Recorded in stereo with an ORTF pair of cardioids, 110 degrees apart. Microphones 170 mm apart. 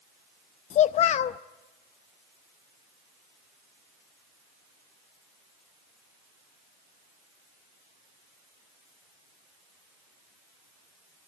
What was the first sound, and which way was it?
A child speaking, 45° left.